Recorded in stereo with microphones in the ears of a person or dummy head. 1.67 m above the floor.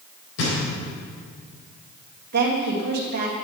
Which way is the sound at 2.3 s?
50° right (ahead or behind).